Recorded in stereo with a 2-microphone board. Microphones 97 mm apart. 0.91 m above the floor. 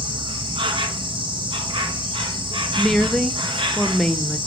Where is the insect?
65° right (ahead or behind), 1.7 m.